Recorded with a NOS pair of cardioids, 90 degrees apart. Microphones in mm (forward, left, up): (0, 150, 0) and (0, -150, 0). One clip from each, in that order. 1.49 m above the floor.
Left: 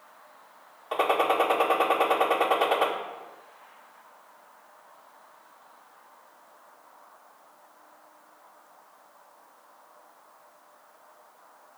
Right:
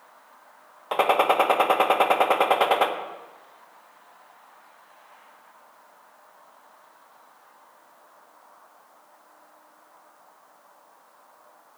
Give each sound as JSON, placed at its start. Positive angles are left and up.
{"t": 0.9, "sound": "a gunshot", "azimuth_deg": -50, "distance_m": 1.5}